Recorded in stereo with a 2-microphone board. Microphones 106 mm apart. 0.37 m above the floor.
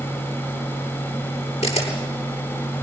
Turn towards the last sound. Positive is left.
turn(degrees=80)